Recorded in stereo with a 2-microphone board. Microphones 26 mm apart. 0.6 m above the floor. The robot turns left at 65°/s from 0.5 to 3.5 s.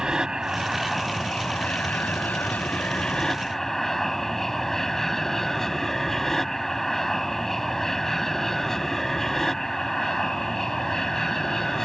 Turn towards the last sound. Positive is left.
turn(degrees=10)